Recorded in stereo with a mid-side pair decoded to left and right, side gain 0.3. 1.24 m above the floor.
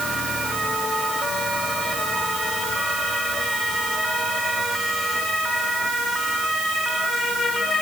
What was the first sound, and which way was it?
Only background noise.